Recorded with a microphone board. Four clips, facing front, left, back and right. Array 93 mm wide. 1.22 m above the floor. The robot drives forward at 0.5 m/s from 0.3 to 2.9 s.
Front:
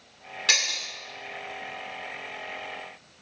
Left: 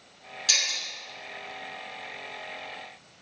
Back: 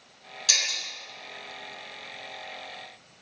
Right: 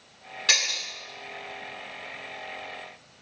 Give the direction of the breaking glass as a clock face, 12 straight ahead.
1 o'clock.